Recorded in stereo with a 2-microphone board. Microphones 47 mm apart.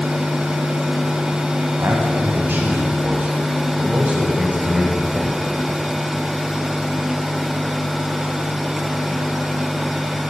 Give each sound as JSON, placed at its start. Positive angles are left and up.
{"t": 1.8, "sound": "a man speaking", "side_deg": -55, "distance_m": 3.0}